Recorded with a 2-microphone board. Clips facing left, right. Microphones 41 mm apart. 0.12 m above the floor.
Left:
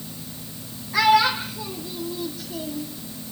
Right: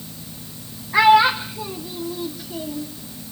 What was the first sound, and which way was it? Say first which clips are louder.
A child speaking: right 4 dB; 30° right (ahead or behind).